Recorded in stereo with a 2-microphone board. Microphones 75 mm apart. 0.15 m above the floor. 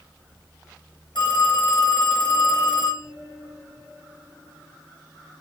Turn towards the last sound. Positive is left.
turn(degrees=75)  # may be behind; listen again after turning